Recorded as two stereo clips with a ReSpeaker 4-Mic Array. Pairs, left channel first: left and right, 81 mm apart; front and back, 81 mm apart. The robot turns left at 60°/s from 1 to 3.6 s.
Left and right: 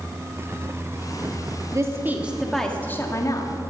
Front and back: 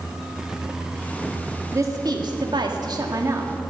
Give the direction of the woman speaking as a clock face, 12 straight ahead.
4 o'clock.